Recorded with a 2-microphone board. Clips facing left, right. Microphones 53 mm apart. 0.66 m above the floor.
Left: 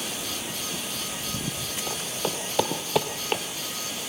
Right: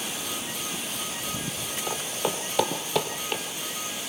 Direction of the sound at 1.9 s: 15° right (ahead or behind).